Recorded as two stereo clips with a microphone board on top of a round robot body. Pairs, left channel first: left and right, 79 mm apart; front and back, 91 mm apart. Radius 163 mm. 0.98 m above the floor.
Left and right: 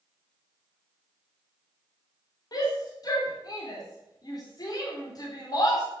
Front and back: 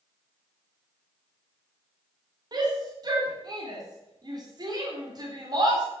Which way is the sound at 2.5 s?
135° left.